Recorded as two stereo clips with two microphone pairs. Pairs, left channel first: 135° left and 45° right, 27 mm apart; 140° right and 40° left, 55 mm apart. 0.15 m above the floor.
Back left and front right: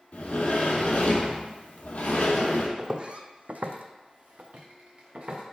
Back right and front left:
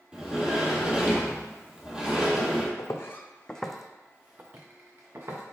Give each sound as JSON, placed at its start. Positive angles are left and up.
{"t": 0.1, "sound": "a sliding door", "azimuth_deg": 115, "distance_m": 0.8}
{"t": 2.8, "sound": "footsteps", "azimuth_deg": -110, "distance_m": 0.6}